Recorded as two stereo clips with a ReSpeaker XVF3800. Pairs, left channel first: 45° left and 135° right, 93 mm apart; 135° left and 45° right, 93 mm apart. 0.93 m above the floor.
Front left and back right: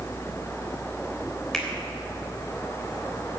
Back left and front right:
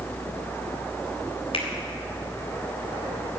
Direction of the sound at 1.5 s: 130° left.